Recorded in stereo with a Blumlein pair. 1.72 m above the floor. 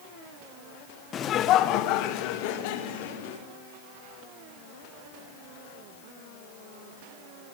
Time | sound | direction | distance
1.1 | laughter | 25° left | 1.3 m